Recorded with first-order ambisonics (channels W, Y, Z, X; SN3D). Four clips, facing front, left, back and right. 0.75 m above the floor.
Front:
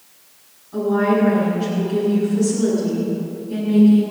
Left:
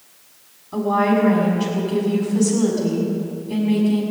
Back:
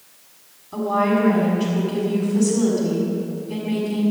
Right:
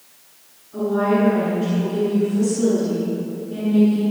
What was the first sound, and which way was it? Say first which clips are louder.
A woman speaking: left 1 dB, front 2 dB; 120° left.